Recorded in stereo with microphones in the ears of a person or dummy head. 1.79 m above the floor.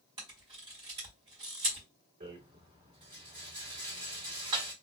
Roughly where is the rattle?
Right.